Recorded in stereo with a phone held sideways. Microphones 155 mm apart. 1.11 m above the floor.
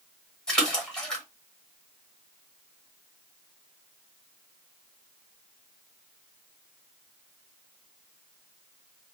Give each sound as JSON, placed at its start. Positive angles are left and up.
{"t": 0.5, "sound": "a splash", "side_deg": 5, "distance_m": 1.1}